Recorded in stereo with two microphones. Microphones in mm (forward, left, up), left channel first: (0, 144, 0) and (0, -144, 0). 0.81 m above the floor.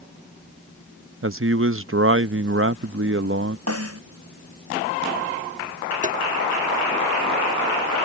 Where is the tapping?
25° right (ahead or behind).